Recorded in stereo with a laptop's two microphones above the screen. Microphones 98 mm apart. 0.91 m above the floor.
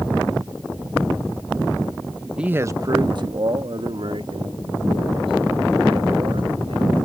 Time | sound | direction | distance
2.4 | a man speaking | 10° right (ahead or behind) | ?